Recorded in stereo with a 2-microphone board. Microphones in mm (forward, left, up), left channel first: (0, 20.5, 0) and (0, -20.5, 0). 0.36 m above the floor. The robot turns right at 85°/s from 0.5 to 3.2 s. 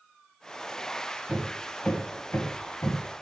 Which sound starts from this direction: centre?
Hammering, at 1.3 s.